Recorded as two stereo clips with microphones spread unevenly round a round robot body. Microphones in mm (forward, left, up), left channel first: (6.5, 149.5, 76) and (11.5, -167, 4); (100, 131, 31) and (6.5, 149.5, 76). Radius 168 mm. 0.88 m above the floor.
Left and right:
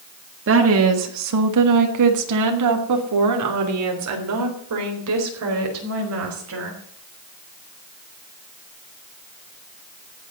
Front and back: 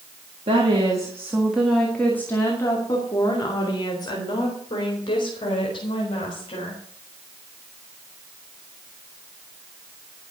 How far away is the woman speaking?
About 1.6 m.